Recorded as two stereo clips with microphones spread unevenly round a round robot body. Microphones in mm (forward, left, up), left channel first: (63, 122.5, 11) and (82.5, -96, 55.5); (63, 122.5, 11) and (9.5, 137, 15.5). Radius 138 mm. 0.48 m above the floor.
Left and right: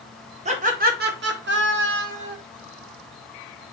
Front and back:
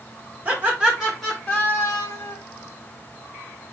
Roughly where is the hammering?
No hammering in this recording.